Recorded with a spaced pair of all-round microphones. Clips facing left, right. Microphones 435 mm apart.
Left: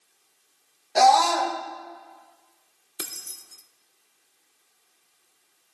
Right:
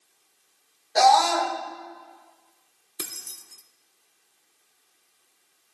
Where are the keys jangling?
10° right (ahead or behind), 0.5 m.